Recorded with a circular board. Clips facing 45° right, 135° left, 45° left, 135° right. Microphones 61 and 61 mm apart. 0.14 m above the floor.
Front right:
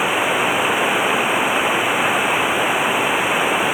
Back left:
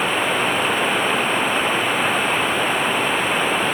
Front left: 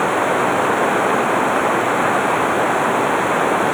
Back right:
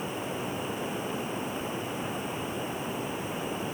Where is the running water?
35° left.